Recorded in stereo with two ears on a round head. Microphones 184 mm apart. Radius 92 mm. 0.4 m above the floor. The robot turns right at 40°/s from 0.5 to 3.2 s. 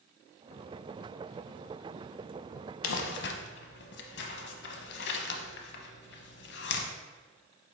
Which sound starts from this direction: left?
Crumpling, at 2.8 s.